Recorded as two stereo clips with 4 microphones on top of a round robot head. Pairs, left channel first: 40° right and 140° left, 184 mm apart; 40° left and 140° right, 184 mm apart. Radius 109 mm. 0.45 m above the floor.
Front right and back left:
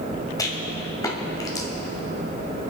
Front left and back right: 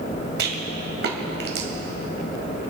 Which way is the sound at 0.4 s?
110° right.